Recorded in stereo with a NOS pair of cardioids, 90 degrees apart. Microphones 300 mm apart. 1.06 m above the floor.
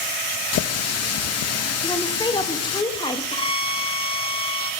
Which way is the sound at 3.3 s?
20° left.